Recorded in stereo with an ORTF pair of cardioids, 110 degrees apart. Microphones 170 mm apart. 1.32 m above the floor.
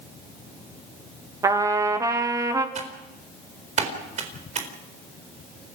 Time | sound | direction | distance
1.4 | a trumpet | 20° right | 2 m
2.8 | typing on a keyboard | 45° right | 4 m